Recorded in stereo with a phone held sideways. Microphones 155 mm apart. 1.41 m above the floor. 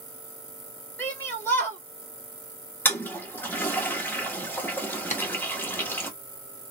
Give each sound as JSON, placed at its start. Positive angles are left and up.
{"t": 1.0, "sound": "a shout", "side_deg": 15, "distance_m": 1.3}
{"t": 2.9, "sound": "a toilet flushing", "side_deg": 15, "distance_m": 0.9}
{"t": 5.1, "sound": "tapping", "side_deg": 50, "distance_m": 0.6}